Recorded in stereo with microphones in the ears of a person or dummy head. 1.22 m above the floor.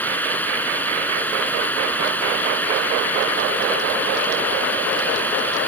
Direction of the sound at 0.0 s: 5° left (ahead or behind).